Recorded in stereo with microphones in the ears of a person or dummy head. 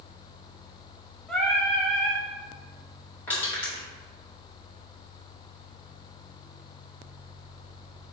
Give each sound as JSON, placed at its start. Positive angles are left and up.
{"t": 1.3, "sound": "singing", "side_deg": 5, "distance_m": 0.6}
{"t": 3.3, "sound": "crushing", "side_deg": 10, "distance_m": 1.8}